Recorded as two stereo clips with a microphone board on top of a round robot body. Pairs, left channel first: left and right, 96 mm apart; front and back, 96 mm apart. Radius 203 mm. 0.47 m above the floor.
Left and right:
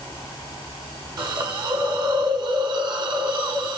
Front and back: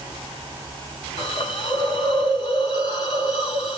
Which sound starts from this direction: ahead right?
A hiss, at 1.2 s.